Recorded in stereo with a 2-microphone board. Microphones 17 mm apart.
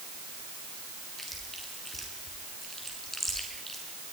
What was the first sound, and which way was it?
Chewing, 15° left (ahead or behind).